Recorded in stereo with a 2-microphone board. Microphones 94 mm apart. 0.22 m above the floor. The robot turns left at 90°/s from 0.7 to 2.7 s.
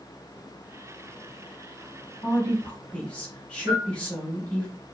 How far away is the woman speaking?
About 1.0 m.